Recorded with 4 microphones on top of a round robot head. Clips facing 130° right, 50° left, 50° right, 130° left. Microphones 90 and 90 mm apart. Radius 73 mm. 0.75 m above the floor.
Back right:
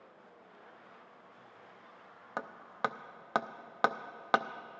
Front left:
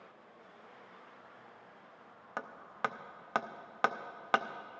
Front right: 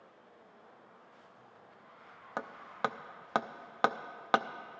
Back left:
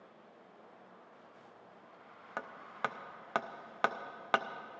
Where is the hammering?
85° right, 0.6 m.